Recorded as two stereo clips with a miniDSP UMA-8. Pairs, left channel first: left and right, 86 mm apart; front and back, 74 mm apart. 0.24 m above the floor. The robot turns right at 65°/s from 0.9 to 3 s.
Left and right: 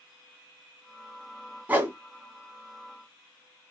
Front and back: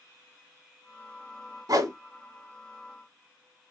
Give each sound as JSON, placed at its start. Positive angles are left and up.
{"t": 1.7, "sound": "a whoosh", "azimuth_deg": -160, "distance_m": 0.8}